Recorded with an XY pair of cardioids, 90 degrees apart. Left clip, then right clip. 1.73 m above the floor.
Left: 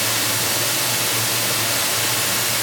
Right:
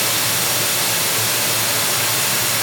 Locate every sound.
0.0 s running water: 60° right, 6.5 m